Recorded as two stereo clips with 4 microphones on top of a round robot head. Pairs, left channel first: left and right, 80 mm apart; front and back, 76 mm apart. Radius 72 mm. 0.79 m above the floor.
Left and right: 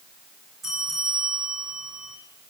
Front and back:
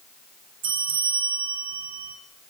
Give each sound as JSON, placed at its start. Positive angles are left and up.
{"t": 0.6, "sound": "a bell", "azimuth_deg": -175, "distance_m": 5.5}